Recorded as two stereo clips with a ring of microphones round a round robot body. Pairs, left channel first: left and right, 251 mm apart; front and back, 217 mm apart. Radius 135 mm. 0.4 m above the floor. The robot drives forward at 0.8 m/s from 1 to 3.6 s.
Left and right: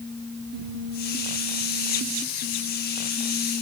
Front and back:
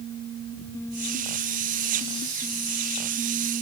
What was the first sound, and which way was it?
Only background noise.